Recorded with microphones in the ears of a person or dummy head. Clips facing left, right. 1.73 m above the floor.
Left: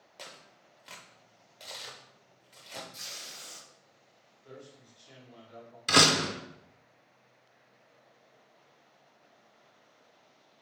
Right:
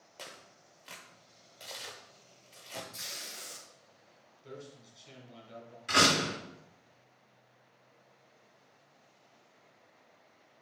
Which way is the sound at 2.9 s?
20° right (ahead or behind).